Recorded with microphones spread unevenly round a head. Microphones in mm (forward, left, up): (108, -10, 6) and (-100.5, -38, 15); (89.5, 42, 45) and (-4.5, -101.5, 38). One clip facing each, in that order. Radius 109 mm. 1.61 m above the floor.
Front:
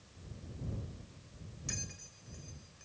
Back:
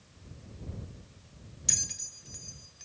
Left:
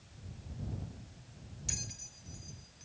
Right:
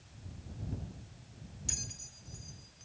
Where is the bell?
145° left.